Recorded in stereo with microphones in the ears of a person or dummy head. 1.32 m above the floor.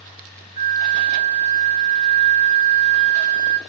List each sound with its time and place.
0.6 s a flute: 20° right (ahead or behind), 2.0 m